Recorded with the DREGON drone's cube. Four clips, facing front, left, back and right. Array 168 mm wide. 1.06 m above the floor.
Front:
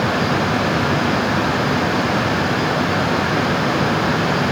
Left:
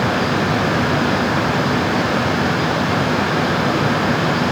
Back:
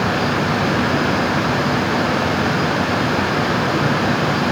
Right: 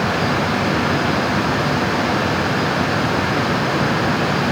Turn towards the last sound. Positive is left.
No sound to turn to.